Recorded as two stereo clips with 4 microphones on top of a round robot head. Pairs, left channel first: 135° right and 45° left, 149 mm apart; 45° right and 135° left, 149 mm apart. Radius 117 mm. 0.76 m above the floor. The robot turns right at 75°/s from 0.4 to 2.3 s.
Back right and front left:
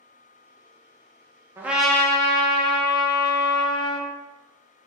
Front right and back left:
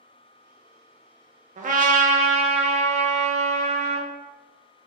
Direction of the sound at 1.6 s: 115° left.